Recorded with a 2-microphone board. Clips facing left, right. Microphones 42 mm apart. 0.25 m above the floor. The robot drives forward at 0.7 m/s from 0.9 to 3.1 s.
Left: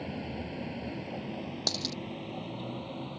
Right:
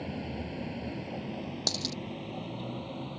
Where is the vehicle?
5° left (ahead or behind); by 3.2 s centre (ahead or behind).